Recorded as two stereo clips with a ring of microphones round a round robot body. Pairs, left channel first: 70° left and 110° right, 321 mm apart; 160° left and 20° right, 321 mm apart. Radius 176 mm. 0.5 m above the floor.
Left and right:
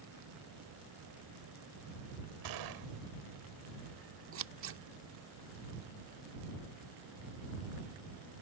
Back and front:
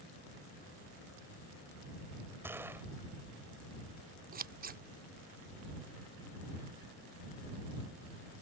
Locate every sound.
2.4 s a gunshot: 105° right
4.3 s scissors: 75° right